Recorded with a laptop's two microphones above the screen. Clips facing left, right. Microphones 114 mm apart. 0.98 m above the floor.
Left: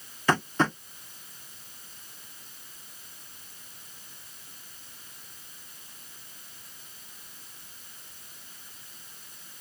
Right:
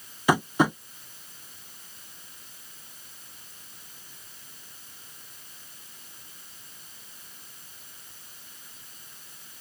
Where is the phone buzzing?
I don't hear a phone buzzing.